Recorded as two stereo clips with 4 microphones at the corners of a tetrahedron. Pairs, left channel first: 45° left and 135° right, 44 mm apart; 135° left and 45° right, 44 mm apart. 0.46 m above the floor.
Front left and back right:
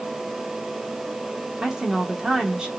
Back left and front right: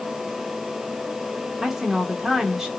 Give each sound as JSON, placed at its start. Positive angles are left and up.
{"t": 1.6, "sound": "a woman speaking", "azimuth_deg": -110, "distance_m": 1.2}